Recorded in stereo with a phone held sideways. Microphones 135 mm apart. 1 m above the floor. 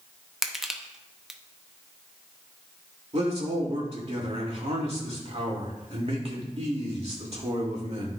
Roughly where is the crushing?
Centre.